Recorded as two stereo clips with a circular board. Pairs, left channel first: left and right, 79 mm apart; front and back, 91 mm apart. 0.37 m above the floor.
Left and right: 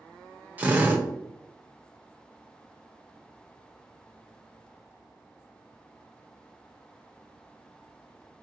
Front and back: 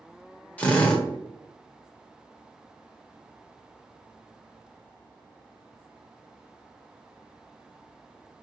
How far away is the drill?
About 1.0 m.